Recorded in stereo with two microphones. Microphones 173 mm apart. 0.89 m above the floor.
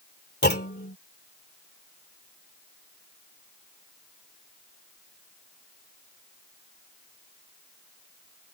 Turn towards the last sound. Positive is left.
turn(degrees=75)  # may be behind; listen again after turning